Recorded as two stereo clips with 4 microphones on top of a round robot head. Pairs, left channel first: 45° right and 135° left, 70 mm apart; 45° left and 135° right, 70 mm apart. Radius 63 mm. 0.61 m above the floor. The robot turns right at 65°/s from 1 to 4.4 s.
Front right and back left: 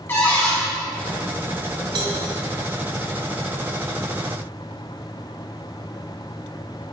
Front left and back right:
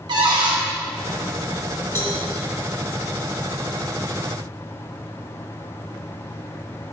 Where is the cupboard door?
110° right, 1.8 m.